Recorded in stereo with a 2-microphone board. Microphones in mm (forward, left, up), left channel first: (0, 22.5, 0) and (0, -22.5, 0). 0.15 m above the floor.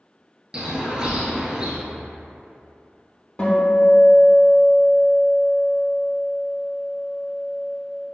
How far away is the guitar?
About 0.9 m.